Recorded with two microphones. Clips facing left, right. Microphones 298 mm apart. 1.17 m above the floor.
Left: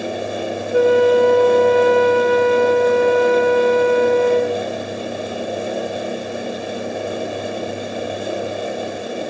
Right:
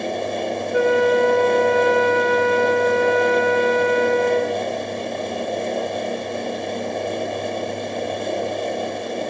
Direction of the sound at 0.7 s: 40° left (ahead or behind).